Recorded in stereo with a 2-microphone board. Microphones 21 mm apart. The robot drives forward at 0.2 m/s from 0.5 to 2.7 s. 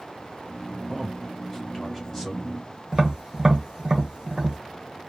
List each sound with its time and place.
0.9 s a man speaking: 25° left (ahead or behind), 0.6 m; by 2.7 s 15° left (ahead or behind), 0.9 m
2.9 s tapping: 35° right (ahead or behind), 0.9 m